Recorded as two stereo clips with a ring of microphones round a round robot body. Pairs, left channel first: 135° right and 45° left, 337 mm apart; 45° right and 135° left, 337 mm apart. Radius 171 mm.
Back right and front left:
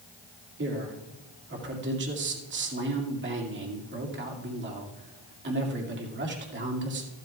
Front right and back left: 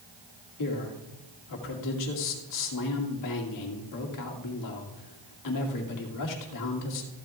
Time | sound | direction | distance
0.6 | a man speaking | 15° right | 2.5 m